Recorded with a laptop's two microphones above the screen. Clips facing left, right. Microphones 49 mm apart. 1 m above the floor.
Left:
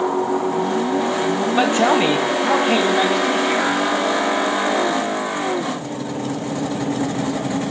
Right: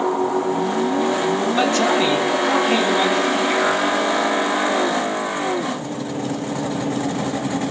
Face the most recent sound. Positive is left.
turn(degrees=20)  # may be behind; listen again after turning